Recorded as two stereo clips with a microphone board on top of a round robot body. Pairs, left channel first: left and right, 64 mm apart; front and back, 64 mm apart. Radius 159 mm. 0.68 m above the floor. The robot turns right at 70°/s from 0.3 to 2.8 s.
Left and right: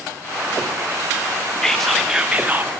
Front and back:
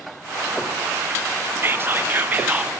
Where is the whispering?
165° left, 0.5 m; by 2.7 s 120° right, 0.5 m.